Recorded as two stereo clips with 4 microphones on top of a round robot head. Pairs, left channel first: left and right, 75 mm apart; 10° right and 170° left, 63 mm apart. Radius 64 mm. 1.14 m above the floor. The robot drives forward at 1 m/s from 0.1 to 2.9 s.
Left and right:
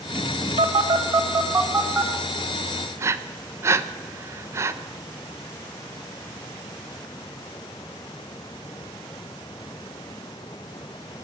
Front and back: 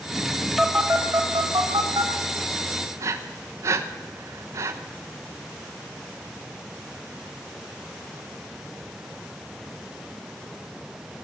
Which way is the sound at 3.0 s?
145° right.